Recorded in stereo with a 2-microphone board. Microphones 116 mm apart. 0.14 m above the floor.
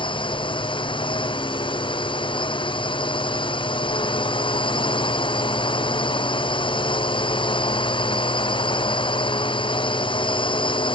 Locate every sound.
0.0 s a drone: 45° left (ahead or behind)